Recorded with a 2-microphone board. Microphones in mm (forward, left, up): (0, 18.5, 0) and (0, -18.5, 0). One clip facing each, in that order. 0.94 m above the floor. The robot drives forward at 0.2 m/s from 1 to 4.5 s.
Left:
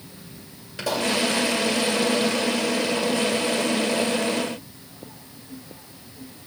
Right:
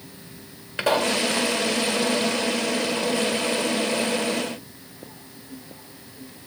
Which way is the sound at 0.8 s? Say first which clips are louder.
Right 3 dB; 45° right (ahead or behind).